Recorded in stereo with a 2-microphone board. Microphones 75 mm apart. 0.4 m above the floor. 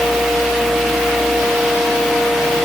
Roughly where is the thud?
No thud in this recording.